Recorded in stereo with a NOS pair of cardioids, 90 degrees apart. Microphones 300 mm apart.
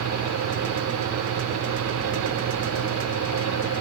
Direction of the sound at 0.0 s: 70° right.